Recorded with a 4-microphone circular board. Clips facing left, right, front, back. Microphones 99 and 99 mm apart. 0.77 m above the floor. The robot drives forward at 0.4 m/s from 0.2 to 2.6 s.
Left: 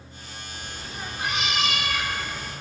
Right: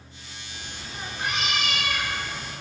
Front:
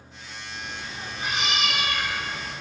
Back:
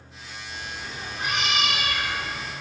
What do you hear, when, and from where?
0.5 s a cat meowing: 160° left, 1.7 m; by 2.5 s 165° left, 2.5 m